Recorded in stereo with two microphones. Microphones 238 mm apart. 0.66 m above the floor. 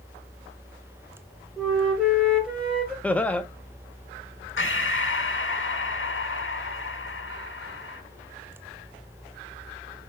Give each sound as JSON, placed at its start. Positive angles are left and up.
{"t": 1.6, "sound": "a flute", "side_deg": -5, "distance_m": 2.5}
{"t": 3.0, "sound": "laughter", "side_deg": 5, "distance_m": 0.6}
{"t": 4.6, "sound": "breathing", "side_deg": 55, "distance_m": 0.7}